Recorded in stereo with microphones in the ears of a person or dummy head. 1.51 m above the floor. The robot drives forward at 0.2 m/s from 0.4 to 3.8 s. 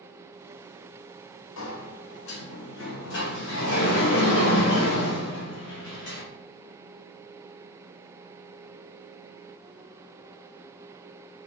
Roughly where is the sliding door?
Left.